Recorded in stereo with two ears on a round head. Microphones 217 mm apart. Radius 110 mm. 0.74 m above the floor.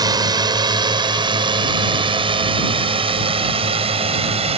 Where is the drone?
15° right (ahead or behind); by 4.6 s 25° right (ahead or behind).